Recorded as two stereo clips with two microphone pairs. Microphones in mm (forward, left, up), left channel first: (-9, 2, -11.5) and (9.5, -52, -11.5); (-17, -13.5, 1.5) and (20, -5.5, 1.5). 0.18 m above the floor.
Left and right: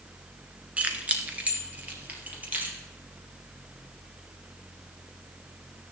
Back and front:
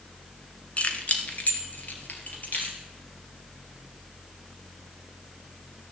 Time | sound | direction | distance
0.8 | keys jangling | 130° right | 1.3 m